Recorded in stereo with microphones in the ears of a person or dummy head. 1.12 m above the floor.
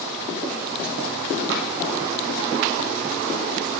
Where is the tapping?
65° right (ahead or behind), 2.5 m.